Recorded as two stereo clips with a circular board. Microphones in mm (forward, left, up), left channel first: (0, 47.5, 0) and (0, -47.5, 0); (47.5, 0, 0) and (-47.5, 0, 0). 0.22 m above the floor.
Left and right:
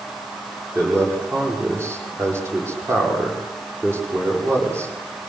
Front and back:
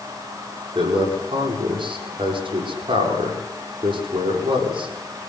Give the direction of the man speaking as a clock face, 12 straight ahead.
5 o'clock.